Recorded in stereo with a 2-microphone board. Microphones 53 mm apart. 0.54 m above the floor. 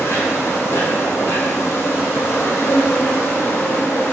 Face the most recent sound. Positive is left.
turn(degrees=60)  # may be behind; listen again after turning